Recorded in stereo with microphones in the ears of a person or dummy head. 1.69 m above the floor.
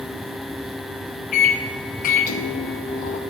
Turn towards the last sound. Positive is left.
turn(degrees=45)  # may be behind; listen again after turning